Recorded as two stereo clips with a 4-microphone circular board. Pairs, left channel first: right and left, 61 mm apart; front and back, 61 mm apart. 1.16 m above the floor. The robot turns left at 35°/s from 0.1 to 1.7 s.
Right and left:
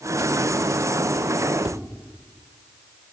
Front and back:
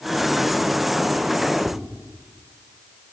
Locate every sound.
1.6 s tapping: 105° left, 0.5 m; by 1.8 s 100° left, 0.5 m